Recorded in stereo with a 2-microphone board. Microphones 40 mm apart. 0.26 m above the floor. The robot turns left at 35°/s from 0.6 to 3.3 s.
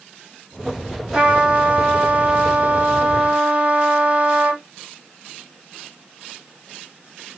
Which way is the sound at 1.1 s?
40° right.